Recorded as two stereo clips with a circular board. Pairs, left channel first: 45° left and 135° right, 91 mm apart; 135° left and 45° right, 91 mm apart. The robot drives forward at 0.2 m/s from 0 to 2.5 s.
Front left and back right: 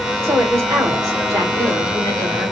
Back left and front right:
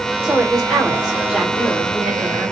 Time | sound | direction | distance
0.2 | a woman speaking | 120° right | 1.2 m